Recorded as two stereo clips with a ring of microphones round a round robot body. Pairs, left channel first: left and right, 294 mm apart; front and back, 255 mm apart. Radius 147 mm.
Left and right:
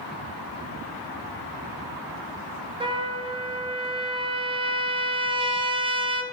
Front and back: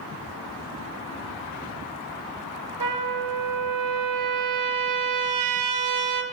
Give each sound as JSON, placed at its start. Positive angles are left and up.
{"t": 2.8, "sound": "a trumpet", "azimuth_deg": -165, "distance_m": 1.5}